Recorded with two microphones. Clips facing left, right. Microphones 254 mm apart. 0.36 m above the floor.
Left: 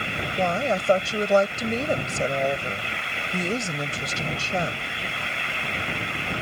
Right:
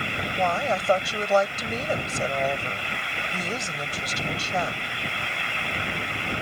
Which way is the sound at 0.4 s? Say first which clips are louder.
Left 2 dB; 25° left (ahead or behind).